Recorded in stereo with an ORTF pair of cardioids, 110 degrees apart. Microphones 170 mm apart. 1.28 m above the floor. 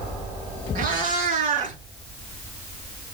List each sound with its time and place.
0.8 s a cat meowing: 55° right, 5.5 m; by 1.8 s 50° right, 6 m